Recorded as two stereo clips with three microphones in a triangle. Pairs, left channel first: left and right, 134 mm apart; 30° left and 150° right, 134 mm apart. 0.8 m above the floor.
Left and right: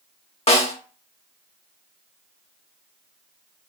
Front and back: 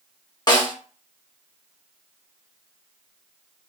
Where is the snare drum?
75° left, 0.7 m.